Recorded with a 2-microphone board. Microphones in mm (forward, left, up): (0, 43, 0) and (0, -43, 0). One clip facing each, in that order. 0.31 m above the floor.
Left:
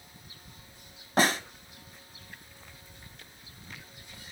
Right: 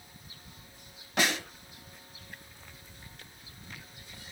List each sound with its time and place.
1.2 s a snare drum: 35° left (ahead or behind), 1.8 m